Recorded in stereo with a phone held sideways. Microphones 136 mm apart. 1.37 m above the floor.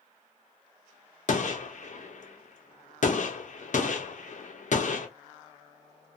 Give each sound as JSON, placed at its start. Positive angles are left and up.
{"t": 1.3, "sound": "a gunshot", "side_deg": 60, "distance_m": 0.6}